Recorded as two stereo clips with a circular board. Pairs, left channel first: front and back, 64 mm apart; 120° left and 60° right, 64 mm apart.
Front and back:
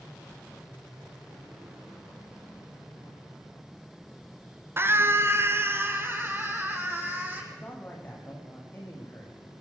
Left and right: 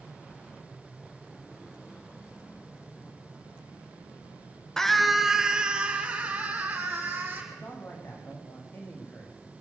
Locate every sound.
4.8 s a scream: 165° right, 1.4 m; by 7.4 s 125° right, 4.5 m
7.5 s a man speaking: 60° left, 6.5 m